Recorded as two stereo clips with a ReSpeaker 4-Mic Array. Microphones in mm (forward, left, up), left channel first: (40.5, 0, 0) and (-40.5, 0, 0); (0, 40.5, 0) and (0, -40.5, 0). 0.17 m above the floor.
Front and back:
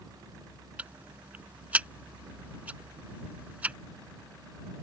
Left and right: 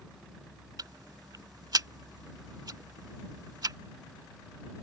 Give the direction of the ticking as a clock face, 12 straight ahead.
4 o'clock.